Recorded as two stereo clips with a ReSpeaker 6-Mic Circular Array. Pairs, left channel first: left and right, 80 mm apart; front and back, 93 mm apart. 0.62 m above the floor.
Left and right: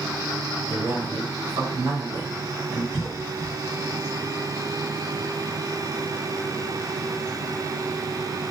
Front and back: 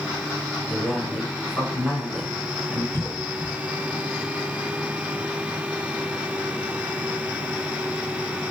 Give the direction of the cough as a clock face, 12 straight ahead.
5 o'clock.